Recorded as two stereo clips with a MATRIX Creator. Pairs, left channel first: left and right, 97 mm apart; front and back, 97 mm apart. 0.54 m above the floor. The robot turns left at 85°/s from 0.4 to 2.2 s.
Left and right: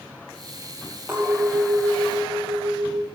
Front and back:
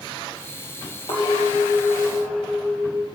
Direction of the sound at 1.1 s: 15° right.